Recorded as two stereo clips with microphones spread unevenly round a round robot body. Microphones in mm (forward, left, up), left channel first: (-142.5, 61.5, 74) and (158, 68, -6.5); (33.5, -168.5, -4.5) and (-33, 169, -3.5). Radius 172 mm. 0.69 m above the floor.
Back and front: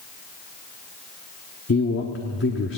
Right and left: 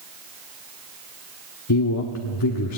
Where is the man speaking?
115° right, 1.2 m.